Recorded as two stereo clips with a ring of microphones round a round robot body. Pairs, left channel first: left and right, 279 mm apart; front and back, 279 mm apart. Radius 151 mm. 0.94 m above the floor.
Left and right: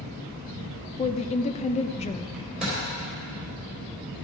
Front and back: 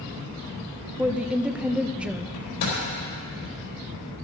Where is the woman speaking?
100° left, 0.5 m.